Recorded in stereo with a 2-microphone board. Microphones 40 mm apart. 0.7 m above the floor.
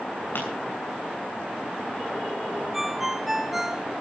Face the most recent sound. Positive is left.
turn(degrees=-10)  # may be behind; listen again after turning